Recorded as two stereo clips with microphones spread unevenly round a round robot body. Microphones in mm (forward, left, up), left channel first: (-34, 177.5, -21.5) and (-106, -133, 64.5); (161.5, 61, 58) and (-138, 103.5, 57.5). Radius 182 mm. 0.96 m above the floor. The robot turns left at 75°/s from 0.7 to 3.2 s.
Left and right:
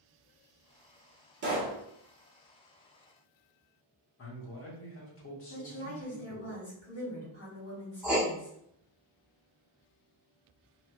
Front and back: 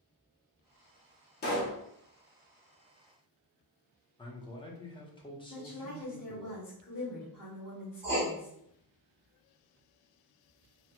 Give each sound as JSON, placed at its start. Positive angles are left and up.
{"t": 1.4, "sound": "a pop", "azimuth_deg": -45, "distance_m": 0.8}
{"t": 4.2, "sound": "a man speaking", "azimuth_deg": 65, "distance_m": 0.9}
{"t": 5.5, "sound": "a woman speaking", "azimuth_deg": 35, "distance_m": 1.8}
{"t": 8.0, "sound": "writing", "azimuth_deg": -140, "distance_m": 0.5}